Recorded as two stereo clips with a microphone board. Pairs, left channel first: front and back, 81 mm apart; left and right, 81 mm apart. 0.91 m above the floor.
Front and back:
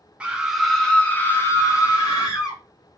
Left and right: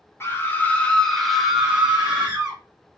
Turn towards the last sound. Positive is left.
turn(degrees=-30)